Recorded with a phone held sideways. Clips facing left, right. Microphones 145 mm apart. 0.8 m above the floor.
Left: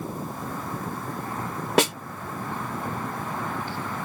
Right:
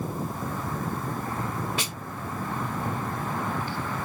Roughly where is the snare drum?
Left.